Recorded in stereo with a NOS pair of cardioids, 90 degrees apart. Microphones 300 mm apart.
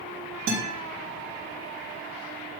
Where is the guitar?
70° right, 4 m.